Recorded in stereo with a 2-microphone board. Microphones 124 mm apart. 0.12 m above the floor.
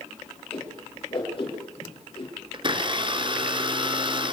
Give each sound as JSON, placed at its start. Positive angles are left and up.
{"t": 0.5, "sound": "a whoosh", "side_deg": 45, "distance_m": 5.5}
{"t": 2.5, "sound": "a blender", "side_deg": -40, "distance_m": 1.2}